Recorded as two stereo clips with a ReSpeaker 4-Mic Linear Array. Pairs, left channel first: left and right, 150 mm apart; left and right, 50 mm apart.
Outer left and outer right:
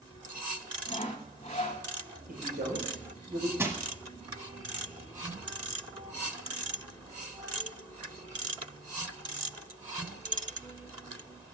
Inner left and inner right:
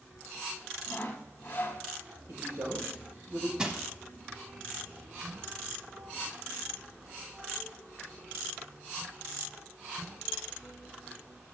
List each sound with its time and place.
0.9 s sawing: 45° left (ahead or behind), 0.8 m
2.3 s a man speaking: 70° right (ahead or behind), 5 m
3.6 s crushing: 15° right (ahead or behind), 1.0 m